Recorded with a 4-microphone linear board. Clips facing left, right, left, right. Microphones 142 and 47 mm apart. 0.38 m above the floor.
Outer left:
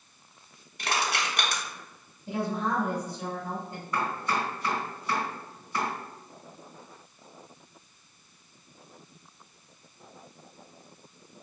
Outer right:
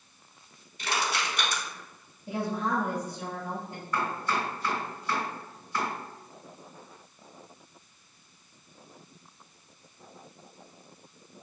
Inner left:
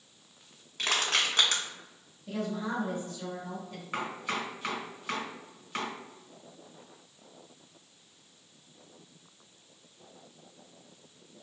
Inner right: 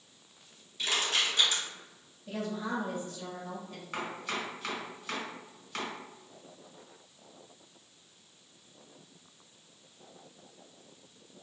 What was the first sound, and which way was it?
Crushing, 85° left.